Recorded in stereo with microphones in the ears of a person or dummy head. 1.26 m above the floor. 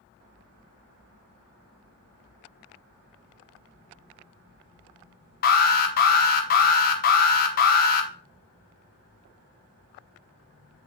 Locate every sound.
5.4 s an alarm: 45° left (ahead or behind), 1.2 m